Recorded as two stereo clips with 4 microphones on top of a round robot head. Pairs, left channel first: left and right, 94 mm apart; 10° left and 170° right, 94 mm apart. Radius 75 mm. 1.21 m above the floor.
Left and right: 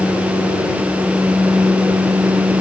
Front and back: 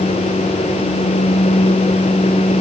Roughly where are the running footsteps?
I don't hear running footsteps.